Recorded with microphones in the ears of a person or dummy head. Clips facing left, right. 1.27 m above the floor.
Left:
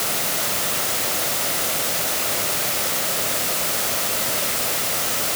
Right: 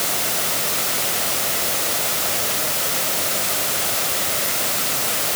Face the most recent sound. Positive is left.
No sound to turn to.